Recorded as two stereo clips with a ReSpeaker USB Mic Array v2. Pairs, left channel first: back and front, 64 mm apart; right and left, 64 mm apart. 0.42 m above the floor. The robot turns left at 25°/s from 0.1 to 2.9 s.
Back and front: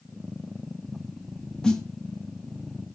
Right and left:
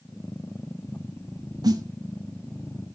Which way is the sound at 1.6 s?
100° left.